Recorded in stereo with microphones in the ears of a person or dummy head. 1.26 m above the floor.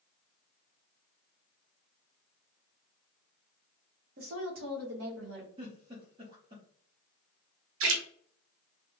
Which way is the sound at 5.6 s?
20° right (ahead or behind).